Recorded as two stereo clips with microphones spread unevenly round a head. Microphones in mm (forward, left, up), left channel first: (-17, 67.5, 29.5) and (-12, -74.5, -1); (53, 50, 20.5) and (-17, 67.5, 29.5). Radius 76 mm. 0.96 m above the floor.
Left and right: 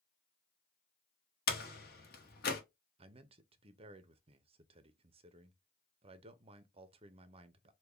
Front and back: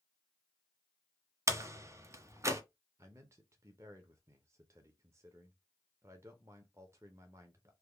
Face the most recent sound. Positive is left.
turn(degrees=-130)